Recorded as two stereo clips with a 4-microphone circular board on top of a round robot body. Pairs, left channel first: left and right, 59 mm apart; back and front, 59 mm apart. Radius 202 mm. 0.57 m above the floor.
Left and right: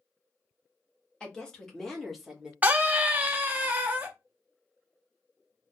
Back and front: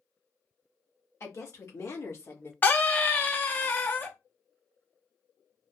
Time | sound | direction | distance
1.2 | a woman speaking | 160° left | 1.7 m
2.6 | a scream | 140° right | 0.7 m